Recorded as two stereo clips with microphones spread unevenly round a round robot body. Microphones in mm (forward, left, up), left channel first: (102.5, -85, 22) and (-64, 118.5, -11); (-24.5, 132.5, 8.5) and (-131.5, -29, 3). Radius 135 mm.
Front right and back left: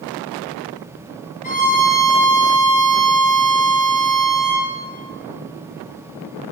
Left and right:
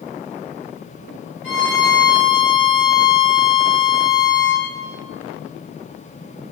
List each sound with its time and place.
1.4 s a violin: 10° left, 3 m